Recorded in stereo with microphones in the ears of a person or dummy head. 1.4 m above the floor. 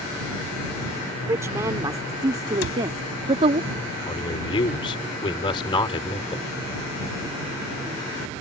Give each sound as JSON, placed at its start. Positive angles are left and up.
{"t": 1.3, "sound": "a woman speaking", "side_deg": -15}
{"t": 2.6, "sound": "a cupboard door", "side_deg": 70}
{"t": 4.1, "sound": "a man speaking", "side_deg": 25}